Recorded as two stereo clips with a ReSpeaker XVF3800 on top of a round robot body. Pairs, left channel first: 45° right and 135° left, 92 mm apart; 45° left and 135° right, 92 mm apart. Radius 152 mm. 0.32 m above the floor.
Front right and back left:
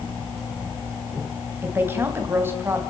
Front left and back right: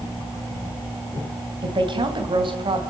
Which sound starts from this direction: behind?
A woman speaking, at 1.6 s.